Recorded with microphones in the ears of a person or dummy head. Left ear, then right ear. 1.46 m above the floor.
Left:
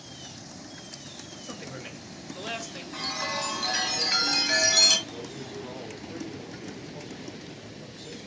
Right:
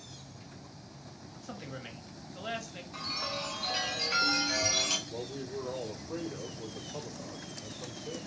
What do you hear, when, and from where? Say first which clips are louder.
1.3 s a man speaking: left 2 dB; 5° left (ahead or behind), 0.7 m
2.9 s a chime: left 5 dB; 70° left (ahead or behind), 1.8 m
5.1 s a man speaking: left 1 dB; 5° left (ahead or behind), 3.5 m